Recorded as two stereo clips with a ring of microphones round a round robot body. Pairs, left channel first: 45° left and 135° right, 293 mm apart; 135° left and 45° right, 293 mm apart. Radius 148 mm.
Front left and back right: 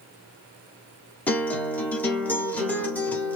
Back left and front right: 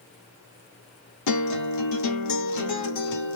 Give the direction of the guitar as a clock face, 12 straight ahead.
8 o'clock.